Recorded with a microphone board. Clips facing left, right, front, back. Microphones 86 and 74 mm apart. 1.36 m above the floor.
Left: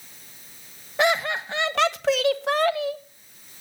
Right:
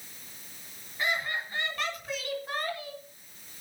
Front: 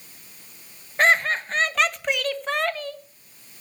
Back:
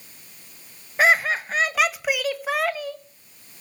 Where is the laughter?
95° left, 1.6 m.